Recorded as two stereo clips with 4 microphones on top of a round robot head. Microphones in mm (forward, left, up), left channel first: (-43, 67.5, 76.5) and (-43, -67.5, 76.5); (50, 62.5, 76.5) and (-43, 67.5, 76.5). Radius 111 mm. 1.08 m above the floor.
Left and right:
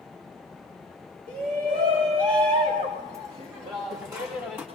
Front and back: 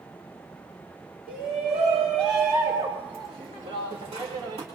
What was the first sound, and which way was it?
A shout, 105° right.